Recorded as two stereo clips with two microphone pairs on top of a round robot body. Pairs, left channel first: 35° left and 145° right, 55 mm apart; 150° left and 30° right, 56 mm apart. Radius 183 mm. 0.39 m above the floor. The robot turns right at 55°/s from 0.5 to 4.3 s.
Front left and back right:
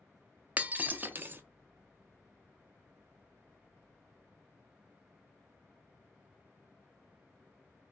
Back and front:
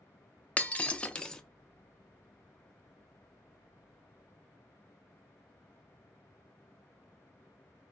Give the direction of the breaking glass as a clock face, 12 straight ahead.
7 o'clock.